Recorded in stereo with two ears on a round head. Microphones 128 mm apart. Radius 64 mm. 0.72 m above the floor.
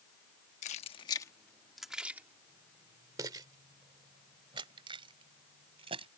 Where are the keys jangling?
50° left (ahead or behind); by 6.1 s 35° right (ahead or behind).